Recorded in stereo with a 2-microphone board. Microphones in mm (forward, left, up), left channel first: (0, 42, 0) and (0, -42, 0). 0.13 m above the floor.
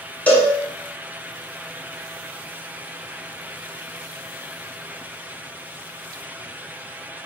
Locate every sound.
0.3 s a cowbell: 20° left (ahead or behind), 0.6 m